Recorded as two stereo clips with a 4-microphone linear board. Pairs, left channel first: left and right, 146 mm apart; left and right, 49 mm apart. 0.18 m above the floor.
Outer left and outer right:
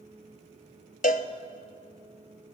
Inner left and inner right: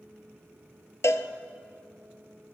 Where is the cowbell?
70° left (ahead or behind), 0.6 m.